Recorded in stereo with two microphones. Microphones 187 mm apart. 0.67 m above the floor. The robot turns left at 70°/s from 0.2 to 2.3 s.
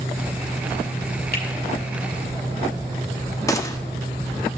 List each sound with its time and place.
1.3 s a finger snap: 65° left (ahead or behind), 1.8 m; by 1.4 s 55° left (ahead or behind), 1.8 m
3.5 s a gunshot: 20° left (ahead or behind), 0.6 m